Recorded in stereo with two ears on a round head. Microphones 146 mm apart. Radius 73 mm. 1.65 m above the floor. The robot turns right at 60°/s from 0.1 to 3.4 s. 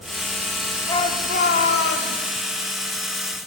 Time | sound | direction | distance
0.9 | a shout | 20° left | 4 m